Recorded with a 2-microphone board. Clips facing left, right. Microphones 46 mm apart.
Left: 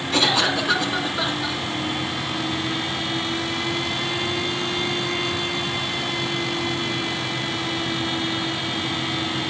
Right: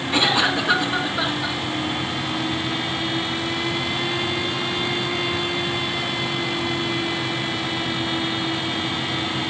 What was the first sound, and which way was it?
A cough, 15° right (ahead or behind).